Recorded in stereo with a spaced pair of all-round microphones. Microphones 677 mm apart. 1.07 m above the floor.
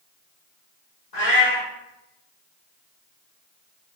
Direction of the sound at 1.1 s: 75° left (ahead or behind).